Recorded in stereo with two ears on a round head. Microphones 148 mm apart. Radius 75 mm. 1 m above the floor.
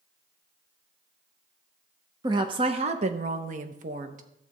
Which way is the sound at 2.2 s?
25° right (ahead or behind).